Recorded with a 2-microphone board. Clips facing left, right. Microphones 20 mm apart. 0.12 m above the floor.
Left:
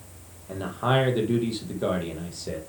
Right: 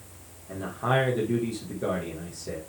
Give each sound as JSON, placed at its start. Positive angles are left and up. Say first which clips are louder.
{"t": 0.5, "sound": "a man speaking", "louder": "left 2 dB", "side_deg": 40, "distance_m": 3.0}